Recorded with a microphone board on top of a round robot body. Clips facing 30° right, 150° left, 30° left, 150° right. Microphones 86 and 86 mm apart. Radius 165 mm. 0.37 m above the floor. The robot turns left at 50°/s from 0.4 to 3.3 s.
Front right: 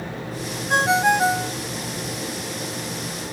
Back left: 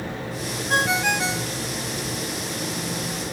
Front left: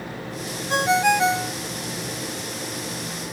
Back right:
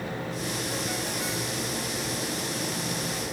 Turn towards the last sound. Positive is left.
turn(degrees=-90)